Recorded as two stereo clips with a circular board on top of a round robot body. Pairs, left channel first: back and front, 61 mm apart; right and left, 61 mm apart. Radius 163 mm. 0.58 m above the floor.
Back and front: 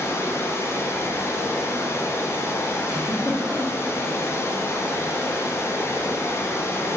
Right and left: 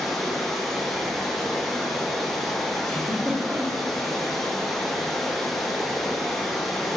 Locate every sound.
0.0 s running water: 175° right, 0.8 m
2.9 s a giggle: 170° right, 1.4 m